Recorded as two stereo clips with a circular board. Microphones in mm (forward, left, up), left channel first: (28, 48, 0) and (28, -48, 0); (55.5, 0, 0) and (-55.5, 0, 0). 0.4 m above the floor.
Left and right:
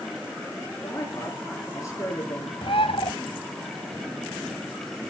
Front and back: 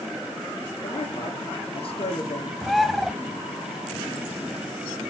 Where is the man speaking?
35° left, 6 m.